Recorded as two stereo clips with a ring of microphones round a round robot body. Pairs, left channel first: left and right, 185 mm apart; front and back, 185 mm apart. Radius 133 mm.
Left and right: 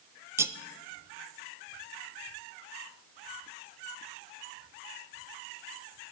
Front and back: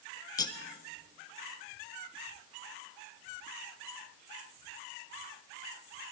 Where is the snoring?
No snoring in this recording.